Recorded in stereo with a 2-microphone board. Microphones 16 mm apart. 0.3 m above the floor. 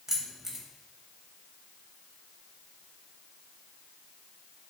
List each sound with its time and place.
0.1 s keys jangling: 25° right (ahead or behind), 0.7 m